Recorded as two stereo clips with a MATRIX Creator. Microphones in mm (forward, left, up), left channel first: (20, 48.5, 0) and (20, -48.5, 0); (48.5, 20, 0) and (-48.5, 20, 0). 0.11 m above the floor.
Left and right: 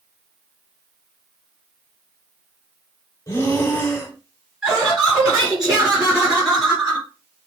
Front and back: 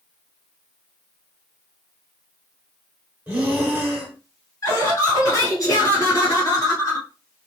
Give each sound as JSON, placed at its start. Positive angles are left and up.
{"t": 3.3, "sound": "breathing", "azimuth_deg": 120, "distance_m": 0.8}
{"t": 4.6, "sound": "laughter", "azimuth_deg": -10, "distance_m": 1.6}